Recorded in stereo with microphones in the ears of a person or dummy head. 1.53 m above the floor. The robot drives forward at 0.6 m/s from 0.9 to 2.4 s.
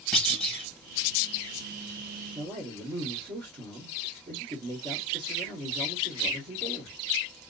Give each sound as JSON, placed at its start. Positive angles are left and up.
{"t": 0.1, "sound": "a clunk", "side_deg": 0, "distance_m": 1.4}
{"t": 2.4, "sound": "a man speaking", "side_deg": -30, "distance_m": 1.2}